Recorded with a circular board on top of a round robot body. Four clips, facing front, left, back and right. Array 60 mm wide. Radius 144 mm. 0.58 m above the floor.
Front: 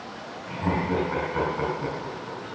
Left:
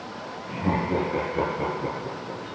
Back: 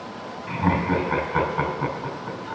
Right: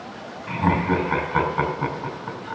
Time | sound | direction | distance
0.5 | laughter | 115° right | 4.5 m